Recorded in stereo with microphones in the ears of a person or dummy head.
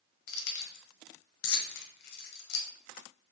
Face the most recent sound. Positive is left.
turn(degrees=60)  # may be behind; listen again after turning